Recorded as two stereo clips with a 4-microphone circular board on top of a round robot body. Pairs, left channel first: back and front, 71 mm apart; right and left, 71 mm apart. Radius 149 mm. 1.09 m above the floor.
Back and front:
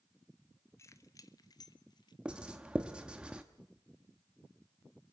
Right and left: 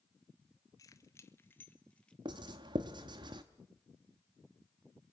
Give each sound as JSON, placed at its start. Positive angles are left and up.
{"t": 0.8, "sound": "keys jangling", "azimuth_deg": -130, "distance_m": 1.2}
{"t": 2.2, "sound": "writing", "azimuth_deg": 75, "distance_m": 0.7}